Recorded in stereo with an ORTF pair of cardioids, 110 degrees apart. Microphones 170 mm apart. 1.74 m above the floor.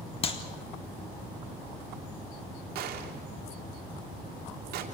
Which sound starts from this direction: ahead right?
A gunshot, at 2.8 s.